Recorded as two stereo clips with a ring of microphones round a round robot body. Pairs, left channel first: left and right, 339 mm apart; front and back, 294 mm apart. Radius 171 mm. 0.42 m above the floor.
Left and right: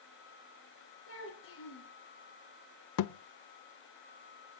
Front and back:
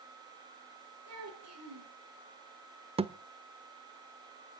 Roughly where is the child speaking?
Behind left.